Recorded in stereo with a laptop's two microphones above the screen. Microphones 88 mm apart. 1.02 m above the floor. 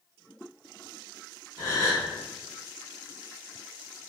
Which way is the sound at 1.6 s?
40° right (ahead or behind).